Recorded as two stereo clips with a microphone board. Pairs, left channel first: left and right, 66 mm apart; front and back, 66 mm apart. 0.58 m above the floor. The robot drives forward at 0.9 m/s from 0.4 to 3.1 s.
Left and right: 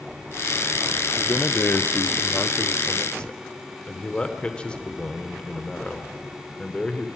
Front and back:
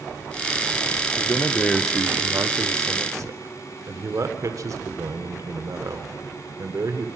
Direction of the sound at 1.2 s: 30° left.